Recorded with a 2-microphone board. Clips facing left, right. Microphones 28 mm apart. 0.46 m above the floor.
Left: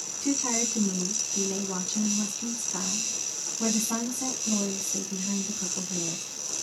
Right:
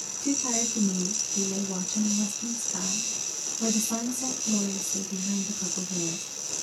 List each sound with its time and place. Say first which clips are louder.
0.2 s a woman speaking: even; 35° left (ahead or behind), 1.2 m